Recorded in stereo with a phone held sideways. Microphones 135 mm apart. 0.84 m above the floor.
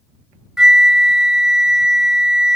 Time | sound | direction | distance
0.6 | a flute | 5° right (ahead or behind) | ?